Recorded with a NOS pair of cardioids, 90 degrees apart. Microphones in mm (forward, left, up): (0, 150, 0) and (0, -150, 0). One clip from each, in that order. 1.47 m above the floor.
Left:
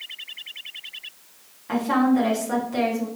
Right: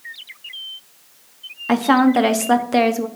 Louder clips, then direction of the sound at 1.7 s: Right 6 dB; 70° right.